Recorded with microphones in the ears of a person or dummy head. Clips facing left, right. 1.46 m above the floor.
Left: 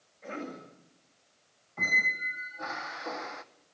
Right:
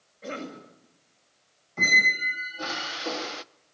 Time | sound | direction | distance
0.2 | a cough | 55° right (ahead or behind) | 6.5 m
1.8 | a squeak | 45° right (ahead or behind) | 0.7 m